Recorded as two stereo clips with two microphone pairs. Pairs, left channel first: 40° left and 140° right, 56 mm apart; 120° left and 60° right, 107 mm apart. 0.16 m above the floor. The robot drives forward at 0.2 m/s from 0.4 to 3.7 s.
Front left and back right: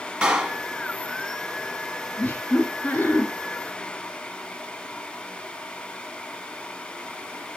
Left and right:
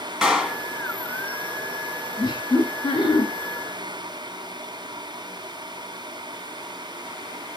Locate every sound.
0.2 s a clap: 140° right, 1.2 m; by 0.6 s 145° right, 1.2 m
2.2 s laughter: 90° left, 2.5 m; by 3.3 s 95° left, 2.5 m